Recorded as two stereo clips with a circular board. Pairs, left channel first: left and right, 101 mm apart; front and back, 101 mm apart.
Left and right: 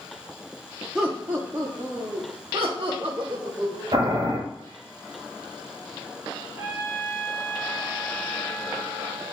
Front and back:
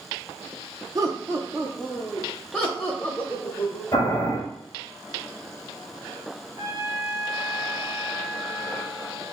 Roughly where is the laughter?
Behind.